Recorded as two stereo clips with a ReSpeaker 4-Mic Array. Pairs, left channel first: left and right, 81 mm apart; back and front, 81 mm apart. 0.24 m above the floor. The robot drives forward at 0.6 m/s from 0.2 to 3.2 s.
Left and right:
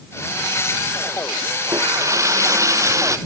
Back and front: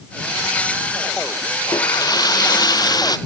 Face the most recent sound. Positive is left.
turn(degrees=-140)